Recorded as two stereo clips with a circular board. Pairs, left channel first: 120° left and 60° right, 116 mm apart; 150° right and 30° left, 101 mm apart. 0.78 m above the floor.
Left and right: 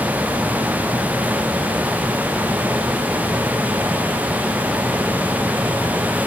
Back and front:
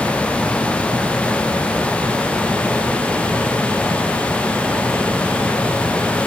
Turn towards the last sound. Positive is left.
No sound to turn to.